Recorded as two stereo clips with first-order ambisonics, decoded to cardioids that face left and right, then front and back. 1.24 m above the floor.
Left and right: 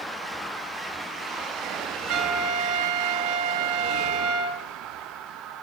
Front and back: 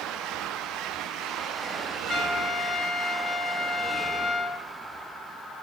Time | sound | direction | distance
2.1 | a trumpet | 75° right | 1.2 m